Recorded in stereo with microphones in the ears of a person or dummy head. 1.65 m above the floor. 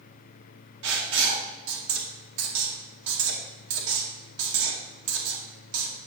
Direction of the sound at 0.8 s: 75° right (ahead or behind).